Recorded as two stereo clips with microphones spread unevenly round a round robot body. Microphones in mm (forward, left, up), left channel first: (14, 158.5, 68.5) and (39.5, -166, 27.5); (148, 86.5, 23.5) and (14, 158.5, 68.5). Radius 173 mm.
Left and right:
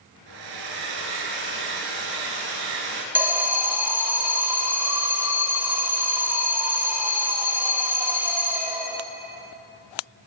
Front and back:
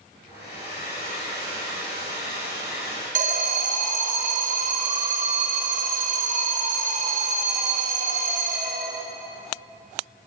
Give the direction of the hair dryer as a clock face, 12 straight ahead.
3 o'clock.